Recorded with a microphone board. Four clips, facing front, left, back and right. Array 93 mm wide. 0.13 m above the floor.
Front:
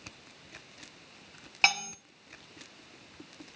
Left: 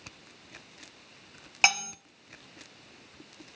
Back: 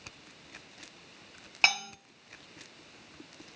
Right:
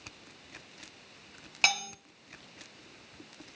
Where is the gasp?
I don't hear a gasp.